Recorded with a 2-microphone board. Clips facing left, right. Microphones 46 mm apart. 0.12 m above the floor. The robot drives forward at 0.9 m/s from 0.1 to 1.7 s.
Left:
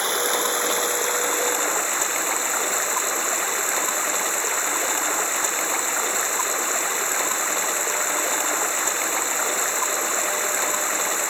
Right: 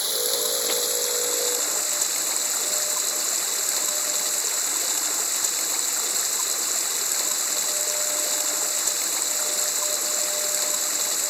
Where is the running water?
50° left (ahead or behind); by 11.3 s 40° left (ahead or behind).